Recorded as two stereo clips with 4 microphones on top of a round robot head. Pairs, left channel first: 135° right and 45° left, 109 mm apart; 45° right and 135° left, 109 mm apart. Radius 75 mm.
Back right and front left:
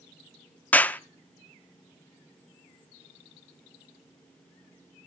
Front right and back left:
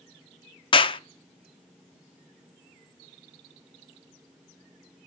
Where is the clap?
60° right, 0.9 m.